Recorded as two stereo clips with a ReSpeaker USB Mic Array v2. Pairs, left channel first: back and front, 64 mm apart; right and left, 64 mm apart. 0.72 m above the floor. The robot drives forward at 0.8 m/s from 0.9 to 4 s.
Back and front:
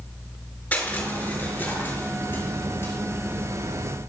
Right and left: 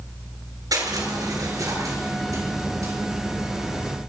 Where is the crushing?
110° left, 5 m; by 2.9 s 125° left, 6 m.